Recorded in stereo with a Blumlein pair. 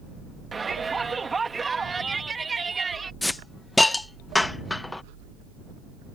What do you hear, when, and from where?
0.5 s a shout: 15° right
3.2 s a hiss: 5° left